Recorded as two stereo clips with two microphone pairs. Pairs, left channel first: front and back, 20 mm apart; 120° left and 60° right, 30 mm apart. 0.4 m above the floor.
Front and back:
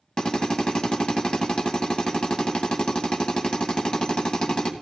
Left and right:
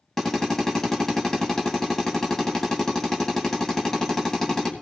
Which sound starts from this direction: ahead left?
A drill, at 0.2 s.